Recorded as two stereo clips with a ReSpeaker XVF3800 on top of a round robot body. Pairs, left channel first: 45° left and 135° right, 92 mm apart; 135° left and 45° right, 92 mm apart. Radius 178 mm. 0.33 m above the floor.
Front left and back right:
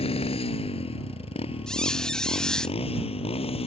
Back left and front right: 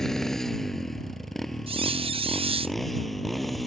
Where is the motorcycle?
50° left; by 3.7 s 45° left.